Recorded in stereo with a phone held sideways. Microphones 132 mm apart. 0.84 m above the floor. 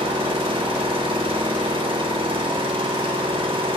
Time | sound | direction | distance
0.0 | an engine running | 40° right (ahead or behind) | 1.4 m